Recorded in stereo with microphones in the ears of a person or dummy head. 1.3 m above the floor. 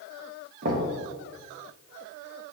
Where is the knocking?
55° right (ahead or behind), 0.7 m.